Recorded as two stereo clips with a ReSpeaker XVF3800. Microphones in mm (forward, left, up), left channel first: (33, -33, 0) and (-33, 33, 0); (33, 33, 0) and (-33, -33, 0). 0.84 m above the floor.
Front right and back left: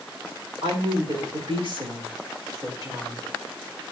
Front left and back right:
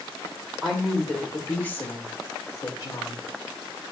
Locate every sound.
0.6 s a woman speaking: 135° left, 3 m; by 3.2 s 80° left, 3 m